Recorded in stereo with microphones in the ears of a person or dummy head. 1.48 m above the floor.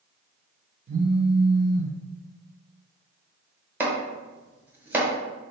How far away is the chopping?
About 1.2 m.